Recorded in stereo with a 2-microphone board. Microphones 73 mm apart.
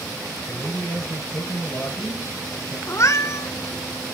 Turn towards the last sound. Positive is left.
turn(degrees=45)  # may be behind; listen again after turning